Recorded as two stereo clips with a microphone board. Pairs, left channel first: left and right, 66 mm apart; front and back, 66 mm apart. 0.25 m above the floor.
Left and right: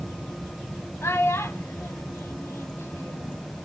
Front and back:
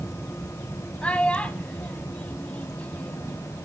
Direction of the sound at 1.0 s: 65° left.